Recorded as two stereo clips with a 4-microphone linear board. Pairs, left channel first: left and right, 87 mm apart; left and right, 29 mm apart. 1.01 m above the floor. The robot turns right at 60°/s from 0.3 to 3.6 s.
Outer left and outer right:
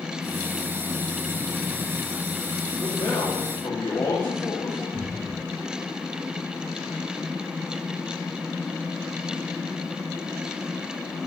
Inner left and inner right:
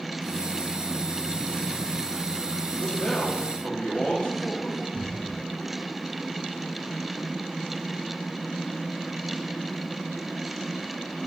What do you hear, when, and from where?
2.8 s a man speaking: 75° left, 2.5 m; by 4.8 s 120° left, 2.5 m
4.9 s a cupboard door: 5° right (ahead or behind), 1.8 m